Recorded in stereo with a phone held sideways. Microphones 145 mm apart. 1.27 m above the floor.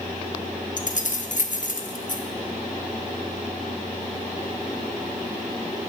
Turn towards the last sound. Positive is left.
turn(degrees=65)  # may be behind; listen again after turning